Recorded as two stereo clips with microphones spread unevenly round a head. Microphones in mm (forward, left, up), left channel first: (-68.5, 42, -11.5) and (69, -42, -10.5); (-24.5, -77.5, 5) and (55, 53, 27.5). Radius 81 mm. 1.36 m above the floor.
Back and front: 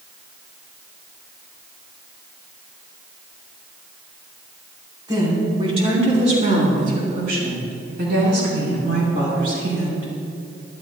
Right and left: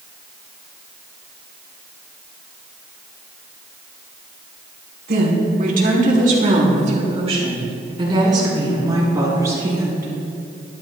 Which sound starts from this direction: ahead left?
A woman speaking, at 5.1 s.